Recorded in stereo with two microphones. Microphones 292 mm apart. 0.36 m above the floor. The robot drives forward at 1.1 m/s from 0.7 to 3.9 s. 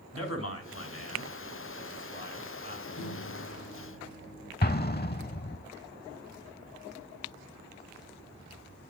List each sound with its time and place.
0.1 s a man speaking: 55° left (ahead or behind), 3.5 m; by 2.9 s 35° left (ahead or behind), 5 m
3.0 s a microwave: 60° left (ahead or behind), 6 m; by 4.5 s 55° left (ahead or behind), 6.5 m
4.6 s an explosion: 35° left (ahead or behind), 0.6 m